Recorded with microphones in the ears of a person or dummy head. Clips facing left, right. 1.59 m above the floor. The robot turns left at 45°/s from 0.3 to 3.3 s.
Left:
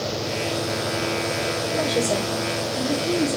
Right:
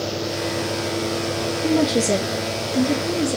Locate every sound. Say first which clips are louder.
1.6 s a woman speaking: right 6 dB; 70° right, 2.5 m; by 3.4 s 145° right, 2.5 m